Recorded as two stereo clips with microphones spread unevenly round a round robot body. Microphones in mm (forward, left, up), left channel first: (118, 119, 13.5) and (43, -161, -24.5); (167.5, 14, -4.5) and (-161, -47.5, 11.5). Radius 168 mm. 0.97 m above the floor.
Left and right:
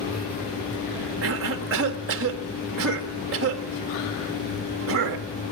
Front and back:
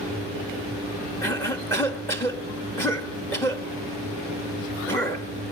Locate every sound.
1.2 s a cough: 70° right, 2 m